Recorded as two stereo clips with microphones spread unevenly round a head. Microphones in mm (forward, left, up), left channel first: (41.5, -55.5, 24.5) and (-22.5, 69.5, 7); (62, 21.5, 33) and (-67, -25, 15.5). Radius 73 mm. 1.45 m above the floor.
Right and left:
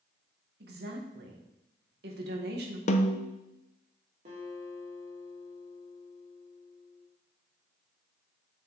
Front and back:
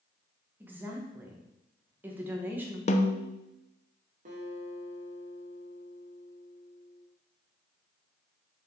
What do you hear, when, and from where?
0.6 s a woman speaking: 125° left, 1.6 m
2.9 s a snare drum: 25° right, 0.7 m
4.2 s a guitar: 160° left, 2.5 m